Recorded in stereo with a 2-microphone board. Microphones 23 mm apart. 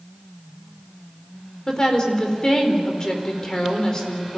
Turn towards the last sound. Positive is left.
turn(degrees=25)  # may be behind; listen again after turning